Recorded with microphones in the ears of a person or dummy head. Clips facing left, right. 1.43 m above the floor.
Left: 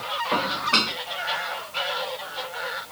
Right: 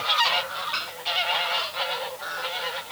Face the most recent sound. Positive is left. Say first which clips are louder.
# left 6 dB
turn(degrees=75)  # may be behind; listen again after turning